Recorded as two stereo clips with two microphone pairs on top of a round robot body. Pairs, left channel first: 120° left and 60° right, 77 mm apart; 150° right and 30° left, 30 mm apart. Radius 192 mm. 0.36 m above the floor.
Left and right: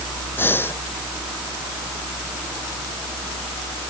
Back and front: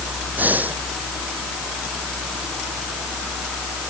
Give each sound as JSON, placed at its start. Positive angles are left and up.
{"t": 0.4, "sound": "breathing", "azimuth_deg": 55}